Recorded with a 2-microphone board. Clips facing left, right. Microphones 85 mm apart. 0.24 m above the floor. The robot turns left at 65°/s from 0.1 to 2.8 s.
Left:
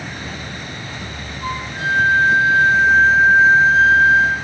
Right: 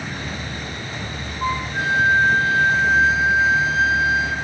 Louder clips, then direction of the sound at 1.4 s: Right 1 dB; 130° right.